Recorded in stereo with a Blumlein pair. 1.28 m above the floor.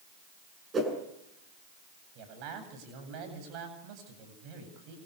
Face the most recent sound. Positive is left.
turn(degrees=-40)